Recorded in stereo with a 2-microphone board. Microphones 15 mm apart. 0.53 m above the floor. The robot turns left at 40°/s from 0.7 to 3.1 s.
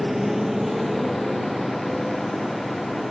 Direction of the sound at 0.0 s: Centre (ahead or behind).